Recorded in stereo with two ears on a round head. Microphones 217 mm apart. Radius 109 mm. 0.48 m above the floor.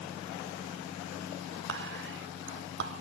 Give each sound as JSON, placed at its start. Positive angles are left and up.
{"t": 1.7, "sound": "whispering", "side_deg": -50, "distance_m": 1.0}